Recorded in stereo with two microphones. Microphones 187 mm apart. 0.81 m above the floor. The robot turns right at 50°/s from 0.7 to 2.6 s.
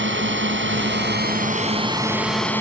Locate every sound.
0.0 s a drone: 85° right; by 2.6 s 10° left